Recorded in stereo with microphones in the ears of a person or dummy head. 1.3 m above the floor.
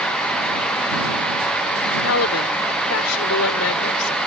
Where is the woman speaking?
85° left; by 4.2 s 80° left.